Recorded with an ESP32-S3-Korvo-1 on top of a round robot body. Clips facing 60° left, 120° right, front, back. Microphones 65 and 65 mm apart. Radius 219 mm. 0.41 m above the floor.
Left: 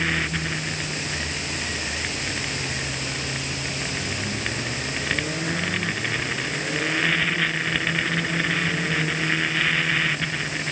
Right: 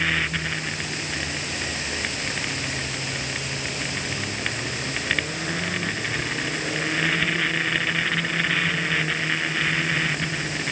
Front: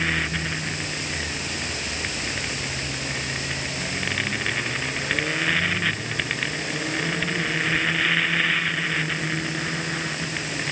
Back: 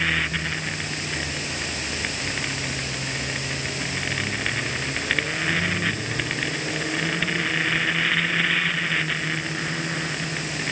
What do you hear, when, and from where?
Only background noise.